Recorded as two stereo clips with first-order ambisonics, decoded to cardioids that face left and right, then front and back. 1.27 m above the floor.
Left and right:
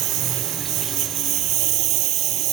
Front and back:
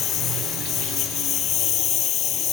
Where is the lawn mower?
50° right.